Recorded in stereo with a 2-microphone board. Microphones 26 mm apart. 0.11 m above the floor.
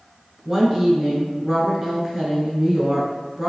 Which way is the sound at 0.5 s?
15° right (ahead or behind).